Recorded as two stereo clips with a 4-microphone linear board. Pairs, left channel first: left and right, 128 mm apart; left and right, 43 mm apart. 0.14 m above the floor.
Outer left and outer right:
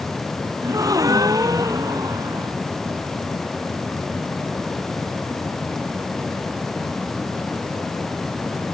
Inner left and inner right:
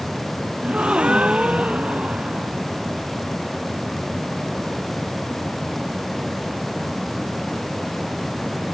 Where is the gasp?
25° right (ahead or behind).